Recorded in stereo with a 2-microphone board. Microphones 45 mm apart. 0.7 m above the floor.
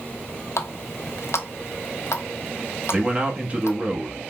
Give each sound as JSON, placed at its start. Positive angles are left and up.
{"t": 0.6, "sound": "a running tap", "side_deg": 70, "distance_m": 0.6}
{"t": 2.9, "sound": "a man speaking", "side_deg": -30, "distance_m": 1.0}